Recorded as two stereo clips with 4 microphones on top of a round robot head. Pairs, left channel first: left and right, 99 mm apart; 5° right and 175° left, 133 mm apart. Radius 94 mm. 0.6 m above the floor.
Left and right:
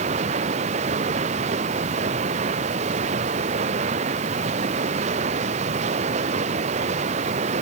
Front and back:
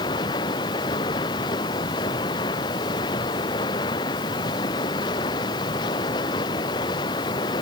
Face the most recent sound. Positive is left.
turn(degrees=-70)